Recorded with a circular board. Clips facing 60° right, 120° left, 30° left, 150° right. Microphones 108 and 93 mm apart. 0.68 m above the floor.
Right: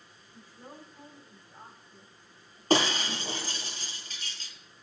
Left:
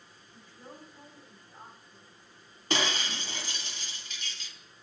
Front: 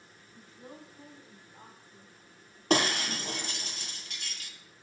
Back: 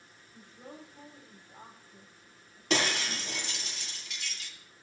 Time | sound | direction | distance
0.3 | a woman speaking | 140° right | 4 m
2.7 | breaking glass | 15° right | 1.9 m